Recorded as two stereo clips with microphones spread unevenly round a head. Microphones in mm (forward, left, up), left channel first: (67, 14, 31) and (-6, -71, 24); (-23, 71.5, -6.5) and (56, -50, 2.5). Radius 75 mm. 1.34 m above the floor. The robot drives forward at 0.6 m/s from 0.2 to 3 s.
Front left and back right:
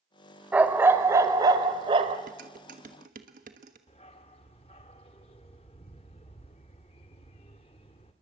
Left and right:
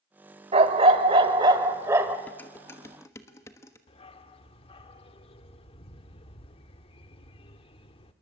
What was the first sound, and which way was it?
A dog barking, 55° right.